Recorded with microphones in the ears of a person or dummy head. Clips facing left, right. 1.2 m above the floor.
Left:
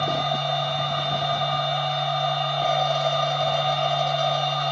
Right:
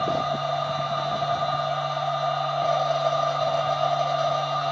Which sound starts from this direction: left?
A machine running, at 0.0 s.